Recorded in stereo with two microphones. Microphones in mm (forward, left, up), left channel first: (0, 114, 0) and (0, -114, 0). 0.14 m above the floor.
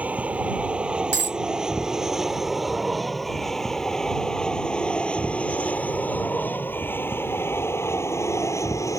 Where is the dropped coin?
50° right (ahead or behind).